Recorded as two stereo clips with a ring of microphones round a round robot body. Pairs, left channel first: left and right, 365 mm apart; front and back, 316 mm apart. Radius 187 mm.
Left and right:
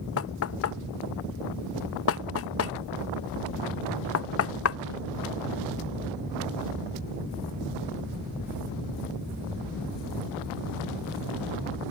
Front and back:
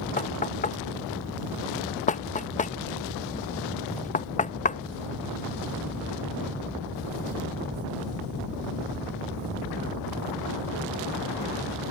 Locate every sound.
0.2 s knocking: 60° left